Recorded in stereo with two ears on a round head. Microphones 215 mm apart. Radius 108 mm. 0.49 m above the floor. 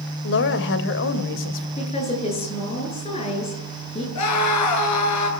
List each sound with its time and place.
0.2 s a woman speaking: 55° left (ahead or behind), 2.5 m
1.8 s a woman speaking: 25° left (ahead or behind), 9 m
4.2 s a scream: 80° left, 7.5 m